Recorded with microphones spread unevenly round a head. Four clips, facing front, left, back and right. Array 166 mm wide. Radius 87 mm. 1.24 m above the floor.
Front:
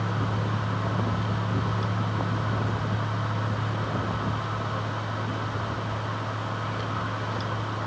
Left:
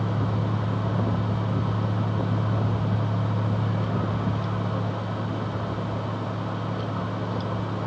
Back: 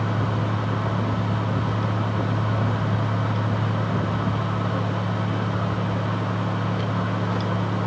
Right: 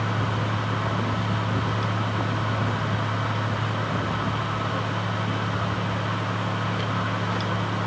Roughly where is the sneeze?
I don't hear a sneeze.